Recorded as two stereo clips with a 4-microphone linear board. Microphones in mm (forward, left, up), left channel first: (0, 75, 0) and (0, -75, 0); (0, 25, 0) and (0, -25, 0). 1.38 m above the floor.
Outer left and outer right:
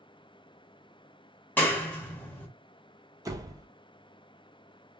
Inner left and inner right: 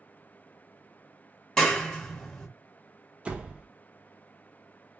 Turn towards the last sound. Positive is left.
turn(degrees=-20)  # may be behind; listen again after turning